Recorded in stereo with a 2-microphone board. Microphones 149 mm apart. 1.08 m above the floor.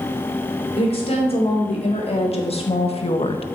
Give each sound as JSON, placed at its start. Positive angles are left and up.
{"t": 0.8, "sound": "a woman speaking", "side_deg": 45, "distance_m": 3.5}